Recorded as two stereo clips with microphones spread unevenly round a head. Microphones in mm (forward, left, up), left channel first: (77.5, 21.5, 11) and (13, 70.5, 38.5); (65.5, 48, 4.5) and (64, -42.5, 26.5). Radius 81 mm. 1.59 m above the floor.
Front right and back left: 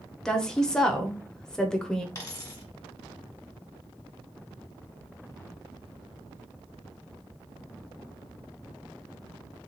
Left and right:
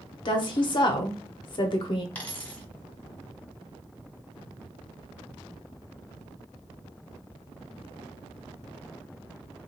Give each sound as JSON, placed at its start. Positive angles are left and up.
{"t": 0.2, "sound": "a woman speaking", "azimuth_deg": 60, "distance_m": 0.7}
{"t": 2.1, "sound": "a dropped coin", "azimuth_deg": 20, "distance_m": 1.5}